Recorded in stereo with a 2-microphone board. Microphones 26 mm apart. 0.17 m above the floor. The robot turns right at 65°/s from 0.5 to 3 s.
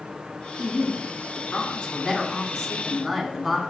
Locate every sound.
0.6 s a woman speaking: 15° left, 1.3 m; by 3.6 s 175° left, 1.3 m